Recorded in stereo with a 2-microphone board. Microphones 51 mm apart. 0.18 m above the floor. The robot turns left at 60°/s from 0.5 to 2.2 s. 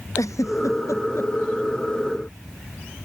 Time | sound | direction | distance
0.2 | a giggle | 80° left | ?